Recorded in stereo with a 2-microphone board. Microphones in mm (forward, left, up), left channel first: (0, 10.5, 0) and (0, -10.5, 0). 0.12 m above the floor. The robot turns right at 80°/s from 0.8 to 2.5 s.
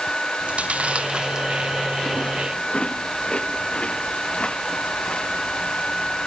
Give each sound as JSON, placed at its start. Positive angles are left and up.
{"t": 0.4, "sound": "chewing", "side_deg": -75}